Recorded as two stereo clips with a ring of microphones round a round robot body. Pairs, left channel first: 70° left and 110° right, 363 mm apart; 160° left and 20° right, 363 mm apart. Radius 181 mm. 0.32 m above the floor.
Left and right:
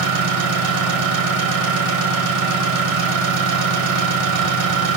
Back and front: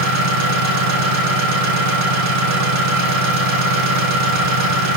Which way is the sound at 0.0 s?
70° right.